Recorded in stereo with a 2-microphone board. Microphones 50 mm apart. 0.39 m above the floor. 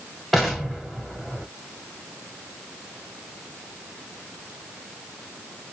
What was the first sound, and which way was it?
An explosion, centre (ahead or behind).